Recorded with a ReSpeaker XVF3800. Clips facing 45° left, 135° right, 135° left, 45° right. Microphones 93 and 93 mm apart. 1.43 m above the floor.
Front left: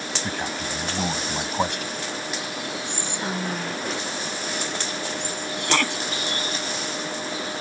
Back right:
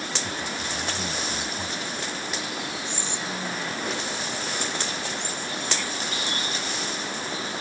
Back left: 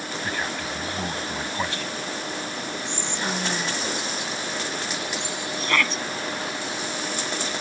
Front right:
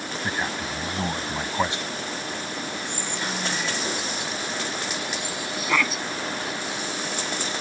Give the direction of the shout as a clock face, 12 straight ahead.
11 o'clock.